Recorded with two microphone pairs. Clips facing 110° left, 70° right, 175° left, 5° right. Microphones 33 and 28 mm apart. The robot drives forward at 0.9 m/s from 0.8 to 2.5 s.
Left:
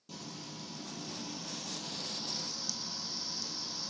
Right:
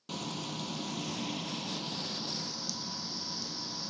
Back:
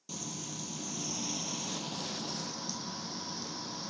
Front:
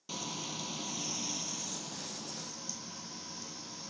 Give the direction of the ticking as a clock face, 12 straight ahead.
I don't hear ticking.